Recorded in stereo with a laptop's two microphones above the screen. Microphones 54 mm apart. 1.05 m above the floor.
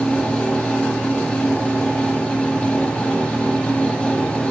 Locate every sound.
0.0 s a fan: 20° left (ahead or behind), 2 m